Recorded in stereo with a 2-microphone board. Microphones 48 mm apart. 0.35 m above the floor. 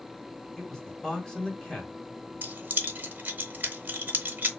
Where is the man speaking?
15° left (ahead or behind), 1.3 m.